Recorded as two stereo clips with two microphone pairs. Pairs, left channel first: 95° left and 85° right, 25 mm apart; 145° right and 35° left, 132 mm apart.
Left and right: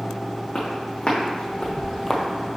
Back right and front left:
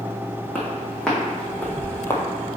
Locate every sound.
0.6 s footsteps: 130° left, 2.5 m; by 2.2 s 170° left, 1.0 m